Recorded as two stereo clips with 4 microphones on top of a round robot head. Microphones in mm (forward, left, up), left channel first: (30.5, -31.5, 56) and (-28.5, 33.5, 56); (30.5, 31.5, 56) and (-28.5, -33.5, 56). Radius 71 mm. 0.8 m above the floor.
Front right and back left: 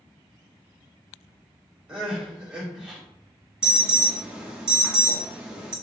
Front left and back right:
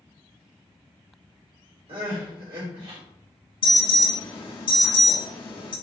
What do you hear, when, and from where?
1.9 s crying: 150° right, 2 m
3.6 s an alarm: 55° left, 1.6 m